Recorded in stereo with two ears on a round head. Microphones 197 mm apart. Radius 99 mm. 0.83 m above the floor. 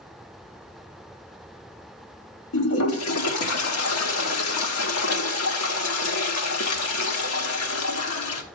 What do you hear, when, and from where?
2.5 s a toilet flushing: 75° left (ahead or behind), 1.5 m